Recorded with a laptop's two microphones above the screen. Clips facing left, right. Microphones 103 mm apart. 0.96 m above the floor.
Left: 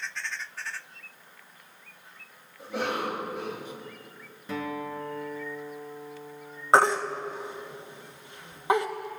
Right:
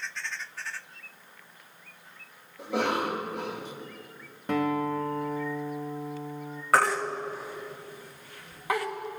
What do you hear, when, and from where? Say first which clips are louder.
2.6 s a cough: right 3 dB; 75° right (ahead or behind), 2 m
4.5 s a guitar: right 7 dB; 60° right (ahead or behind), 1.1 m
6.7 s a baby crying: left 3 dB; 25° left (ahead or behind), 1.0 m